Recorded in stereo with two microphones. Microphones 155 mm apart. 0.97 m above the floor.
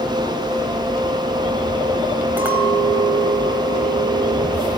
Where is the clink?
10° right (ahead or behind), 4 m.